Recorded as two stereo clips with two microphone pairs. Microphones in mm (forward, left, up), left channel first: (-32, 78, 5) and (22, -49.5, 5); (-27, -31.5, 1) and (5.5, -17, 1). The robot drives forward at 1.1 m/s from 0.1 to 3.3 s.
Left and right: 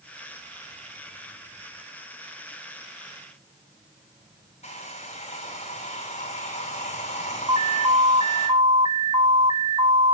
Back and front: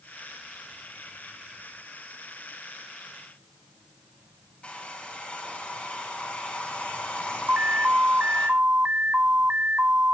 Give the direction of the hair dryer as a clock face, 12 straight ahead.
7 o'clock.